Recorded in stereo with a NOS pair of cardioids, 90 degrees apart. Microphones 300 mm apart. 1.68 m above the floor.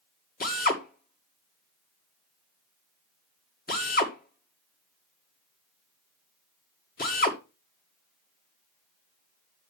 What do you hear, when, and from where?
0.4 s a drill: 30° left, 1.9 m